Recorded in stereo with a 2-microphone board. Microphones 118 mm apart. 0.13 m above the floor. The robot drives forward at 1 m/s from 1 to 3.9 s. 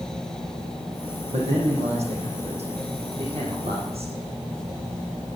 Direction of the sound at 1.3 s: 75° right (ahead or behind).